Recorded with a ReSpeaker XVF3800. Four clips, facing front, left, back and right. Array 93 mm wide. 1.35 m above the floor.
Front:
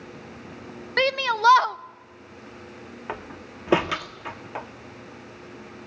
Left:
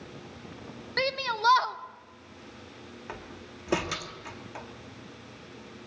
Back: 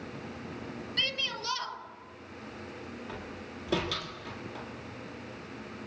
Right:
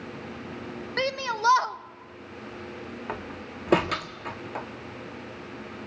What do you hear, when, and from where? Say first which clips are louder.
1.0 s a shout: right 1 dB, front 16 dB; 10° right, 1.0 m
3.1 s a door slam: right 5 dB, front 5 dB; 35° right, 1.6 m